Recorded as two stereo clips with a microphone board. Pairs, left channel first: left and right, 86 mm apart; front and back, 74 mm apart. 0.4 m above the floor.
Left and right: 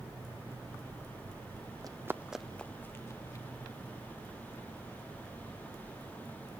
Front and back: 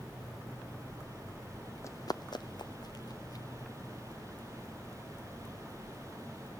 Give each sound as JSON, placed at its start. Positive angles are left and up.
{"t": 1.8, "sound": "running footsteps", "azimuth_deg": -50, "distance_m": 1.1}